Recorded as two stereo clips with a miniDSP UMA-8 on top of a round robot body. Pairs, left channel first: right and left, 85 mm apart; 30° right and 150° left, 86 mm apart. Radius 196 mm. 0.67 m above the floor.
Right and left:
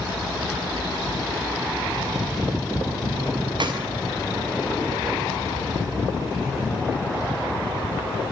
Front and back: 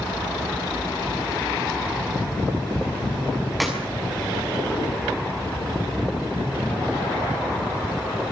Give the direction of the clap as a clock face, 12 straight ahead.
10 o'clock.